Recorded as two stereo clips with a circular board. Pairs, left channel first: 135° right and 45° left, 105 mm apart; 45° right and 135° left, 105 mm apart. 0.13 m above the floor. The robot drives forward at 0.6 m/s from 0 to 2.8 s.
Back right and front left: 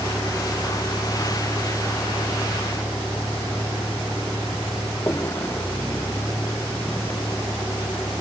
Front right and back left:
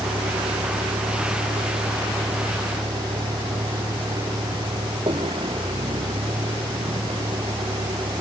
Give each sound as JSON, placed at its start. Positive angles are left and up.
{"t": 0.0, "sound": "a vehicle", "azimuth_deg": 160}